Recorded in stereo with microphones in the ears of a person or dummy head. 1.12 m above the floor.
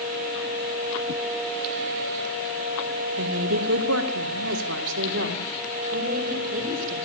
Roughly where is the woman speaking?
Right.